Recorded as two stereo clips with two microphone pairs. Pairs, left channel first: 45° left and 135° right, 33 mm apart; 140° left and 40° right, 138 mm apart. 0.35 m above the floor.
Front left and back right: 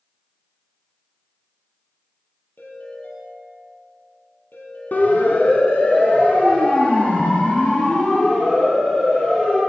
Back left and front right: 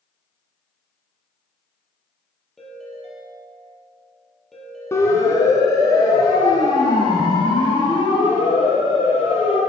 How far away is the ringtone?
About 5.5 m.